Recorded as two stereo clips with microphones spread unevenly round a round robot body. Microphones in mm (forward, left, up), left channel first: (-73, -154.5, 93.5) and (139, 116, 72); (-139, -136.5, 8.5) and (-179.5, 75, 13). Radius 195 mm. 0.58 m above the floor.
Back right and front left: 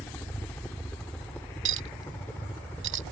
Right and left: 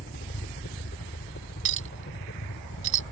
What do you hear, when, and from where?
0.0 s a helicopter: 45° right
1.6 s a clink: 110° left